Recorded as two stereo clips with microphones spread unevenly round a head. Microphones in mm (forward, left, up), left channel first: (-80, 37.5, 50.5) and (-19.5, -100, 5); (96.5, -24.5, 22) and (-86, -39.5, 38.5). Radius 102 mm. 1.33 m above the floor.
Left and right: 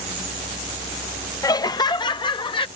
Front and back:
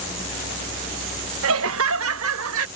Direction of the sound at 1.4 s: 175° right.